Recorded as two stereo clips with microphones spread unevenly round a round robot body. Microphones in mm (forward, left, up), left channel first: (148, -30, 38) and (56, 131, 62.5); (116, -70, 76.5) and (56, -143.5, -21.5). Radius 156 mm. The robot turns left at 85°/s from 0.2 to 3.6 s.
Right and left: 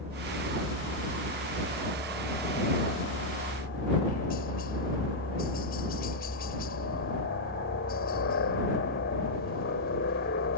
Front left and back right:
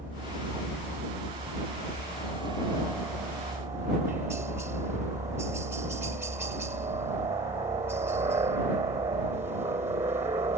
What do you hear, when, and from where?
0.0 s a helicopter: 175° right; by 10.6 s 95° right